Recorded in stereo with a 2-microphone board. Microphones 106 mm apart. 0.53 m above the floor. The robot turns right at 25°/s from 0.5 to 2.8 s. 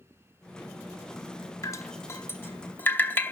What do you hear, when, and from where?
1.6 s dripping: 30° left (ahead or behind), 0.7 m; by 3.3 s 20° left (ahead or behind), 0.7 m